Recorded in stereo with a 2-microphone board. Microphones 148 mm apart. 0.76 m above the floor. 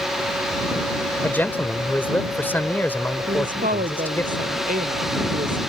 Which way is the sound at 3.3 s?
75° right (ahead or behind).